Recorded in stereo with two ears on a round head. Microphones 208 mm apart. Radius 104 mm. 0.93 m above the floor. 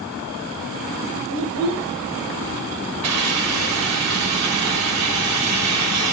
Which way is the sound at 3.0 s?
80° right.